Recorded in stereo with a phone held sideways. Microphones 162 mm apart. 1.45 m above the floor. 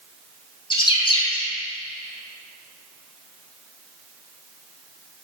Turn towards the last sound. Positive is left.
turn(degrees=30)  # may be behind; listen again after turning